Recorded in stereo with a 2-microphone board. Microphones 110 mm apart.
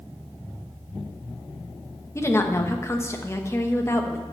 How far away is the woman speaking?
About 1.2 m.